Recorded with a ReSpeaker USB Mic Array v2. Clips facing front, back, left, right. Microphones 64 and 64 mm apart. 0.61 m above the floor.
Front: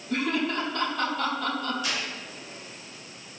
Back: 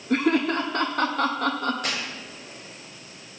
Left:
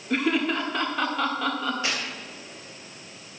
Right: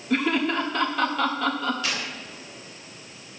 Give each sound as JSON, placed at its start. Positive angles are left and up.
{"t": 0.1, "sound": "laughter", "azimuth_deg": 175, "distance_m": 1.1}
{"t": 1.8, "sound": "tearing paper", "azimuth_deg": 155, "distance_m": 3.0}